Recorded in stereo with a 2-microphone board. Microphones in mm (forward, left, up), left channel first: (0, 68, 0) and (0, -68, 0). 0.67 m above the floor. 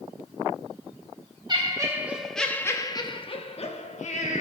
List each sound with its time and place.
1.5 s laughter: 35° right (ahead or behind), 0.8 m; by 4.4 s 60° left (ahead or behind), 1.4 m